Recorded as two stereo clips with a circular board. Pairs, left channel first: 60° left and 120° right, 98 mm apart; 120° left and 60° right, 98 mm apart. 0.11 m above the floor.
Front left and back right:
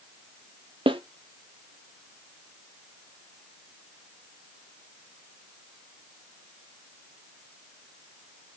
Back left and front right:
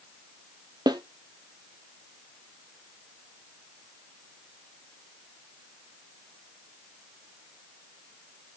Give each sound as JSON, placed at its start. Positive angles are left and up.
{"t": 0.9, "sound": "a snare drum", "azimuth_deg": -100, "distance_m": 0.5}